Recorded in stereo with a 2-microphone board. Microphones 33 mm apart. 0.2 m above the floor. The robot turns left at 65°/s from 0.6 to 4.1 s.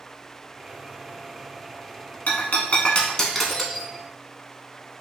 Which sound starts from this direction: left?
Breaking glass, at 2.3 s.